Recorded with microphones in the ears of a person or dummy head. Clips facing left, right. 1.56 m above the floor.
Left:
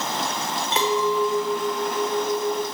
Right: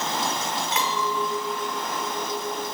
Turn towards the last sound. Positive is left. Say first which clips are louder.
# left 8 dB
turn(degrees=35)  # may be behind; listen again after turning